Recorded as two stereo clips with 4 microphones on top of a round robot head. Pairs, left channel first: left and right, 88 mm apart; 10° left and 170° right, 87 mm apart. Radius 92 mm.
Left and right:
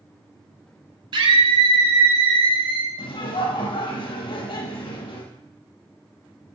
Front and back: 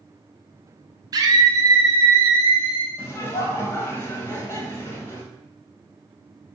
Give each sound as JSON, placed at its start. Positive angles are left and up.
{"t": 1.1, "sound": "a scream", "azimuth_deg": -120, "distance_m": 3.0}
{"t": 3.0, "sound": "laughter", "azimuth_deg": 70, "distance_m": 5.0}